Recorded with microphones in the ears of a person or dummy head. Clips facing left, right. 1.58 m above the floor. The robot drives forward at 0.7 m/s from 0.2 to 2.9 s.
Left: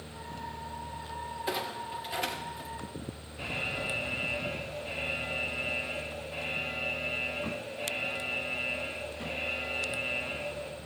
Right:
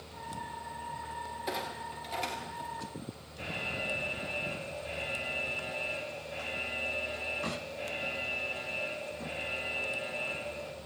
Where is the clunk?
5° left (ahead or behind), 2 m; by 2.7 s 10° left (ahead or behind), 1.2 m.